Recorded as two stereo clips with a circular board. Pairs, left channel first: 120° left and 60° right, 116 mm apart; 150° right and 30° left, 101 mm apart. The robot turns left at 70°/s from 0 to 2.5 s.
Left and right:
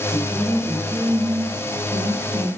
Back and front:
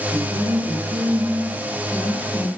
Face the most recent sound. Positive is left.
turn(degrees=-90)